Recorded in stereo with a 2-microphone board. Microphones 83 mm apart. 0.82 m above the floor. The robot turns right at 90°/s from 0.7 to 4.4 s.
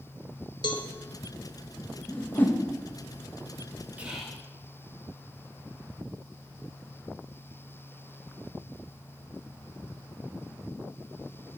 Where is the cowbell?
65° left (ahead or behind), 0.9 m.